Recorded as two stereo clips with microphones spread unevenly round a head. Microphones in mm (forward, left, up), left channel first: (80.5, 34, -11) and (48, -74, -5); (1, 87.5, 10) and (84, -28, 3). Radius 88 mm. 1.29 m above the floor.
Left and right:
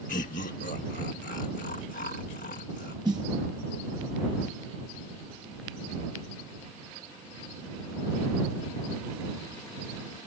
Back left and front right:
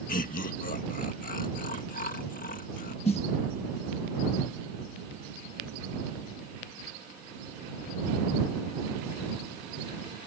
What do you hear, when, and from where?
0.1 s laughter: 100° left
3.0 s a snare drum: 175° right